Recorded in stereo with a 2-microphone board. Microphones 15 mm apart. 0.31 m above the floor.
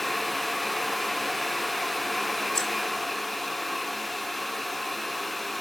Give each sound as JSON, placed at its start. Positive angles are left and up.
{"t": 2.5, "sound": "keys jangling", "side_deg": 55, "distance_m": 1.7}